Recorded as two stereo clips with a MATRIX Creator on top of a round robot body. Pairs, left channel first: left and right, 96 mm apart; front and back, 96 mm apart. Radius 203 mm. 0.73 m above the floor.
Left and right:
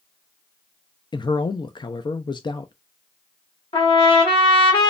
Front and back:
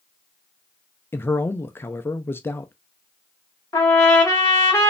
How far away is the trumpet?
About 0.8 m.